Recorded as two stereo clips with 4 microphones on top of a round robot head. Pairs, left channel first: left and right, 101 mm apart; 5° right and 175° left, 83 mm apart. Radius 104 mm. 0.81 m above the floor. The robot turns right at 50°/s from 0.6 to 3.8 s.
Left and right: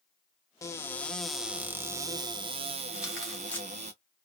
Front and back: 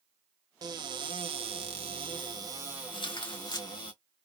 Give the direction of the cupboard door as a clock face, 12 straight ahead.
7 o'clock.